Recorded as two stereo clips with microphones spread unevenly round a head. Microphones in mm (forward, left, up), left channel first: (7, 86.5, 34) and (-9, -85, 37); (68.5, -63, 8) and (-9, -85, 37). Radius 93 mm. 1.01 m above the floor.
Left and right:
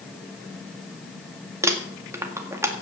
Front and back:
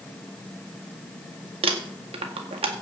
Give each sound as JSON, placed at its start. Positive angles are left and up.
{"t": 1.6, "sound": "crumpling", "azimuth_deg": -170, "distance_m": 1.8}